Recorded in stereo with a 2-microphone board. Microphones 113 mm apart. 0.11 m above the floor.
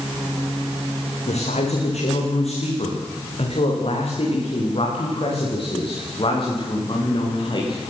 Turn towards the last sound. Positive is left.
turn(degrees=45)  # may be behind; listen again after turning